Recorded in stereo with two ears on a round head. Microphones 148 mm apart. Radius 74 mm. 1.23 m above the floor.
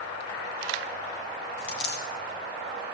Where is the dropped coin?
65° left (ahead or behind), 2.5 m.